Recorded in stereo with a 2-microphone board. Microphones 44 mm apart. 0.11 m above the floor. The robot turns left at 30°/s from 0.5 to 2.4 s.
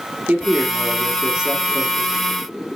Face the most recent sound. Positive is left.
turn(degrees=170)